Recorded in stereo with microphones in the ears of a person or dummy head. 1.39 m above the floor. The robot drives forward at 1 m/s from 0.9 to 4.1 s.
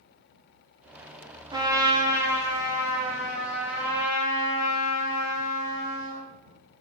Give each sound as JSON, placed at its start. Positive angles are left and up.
{"t": 1.5, "sound": "a trumpet", "side_deg": -20, "distance_m": 0.8}